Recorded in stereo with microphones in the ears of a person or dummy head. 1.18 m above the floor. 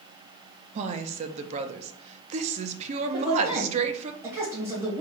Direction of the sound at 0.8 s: 45° right (ahead or behind).